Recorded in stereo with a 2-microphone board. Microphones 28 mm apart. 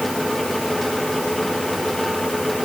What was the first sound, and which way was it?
Only background noise.